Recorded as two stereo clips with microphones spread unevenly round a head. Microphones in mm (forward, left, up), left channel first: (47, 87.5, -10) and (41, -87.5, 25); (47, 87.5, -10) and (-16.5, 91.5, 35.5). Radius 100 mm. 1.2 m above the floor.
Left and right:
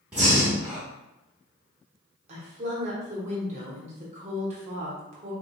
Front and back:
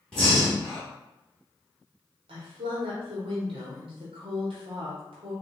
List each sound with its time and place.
0.1 s breathing: 155° right, 0.9 m
2.3 s a woman speaking: 150° right, 0.9 m